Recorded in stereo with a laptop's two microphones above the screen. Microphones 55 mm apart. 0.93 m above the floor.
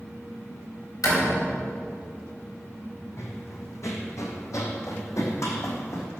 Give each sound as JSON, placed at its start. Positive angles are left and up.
{"t": 1.0, "sound": "a door slam", "side_deg": 85, "distance_m": 5.0}
{"t": 3.2, "sound": "running footsteps", "side_deg": 60, "distance_m": 2.5}